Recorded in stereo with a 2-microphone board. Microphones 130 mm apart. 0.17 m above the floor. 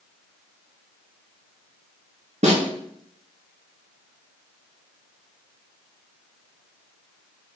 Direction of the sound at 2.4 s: 60° right (ahead or behind).